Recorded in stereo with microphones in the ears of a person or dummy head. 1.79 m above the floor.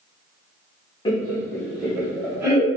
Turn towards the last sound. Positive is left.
turn(degrees=-20)  # may be behind; listen again after turning